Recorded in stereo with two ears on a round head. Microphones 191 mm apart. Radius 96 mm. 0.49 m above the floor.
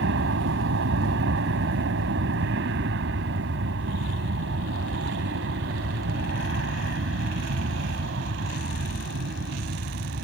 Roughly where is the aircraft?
Right.